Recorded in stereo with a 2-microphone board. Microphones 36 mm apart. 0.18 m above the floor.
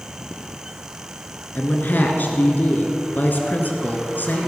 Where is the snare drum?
No snare drum in this recording.